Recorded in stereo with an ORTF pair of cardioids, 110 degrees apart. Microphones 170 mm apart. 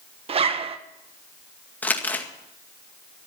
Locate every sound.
0.3 s a zipper: 40° right, 1.5 m
1.8 s crumpling: 10° left, 2.0 m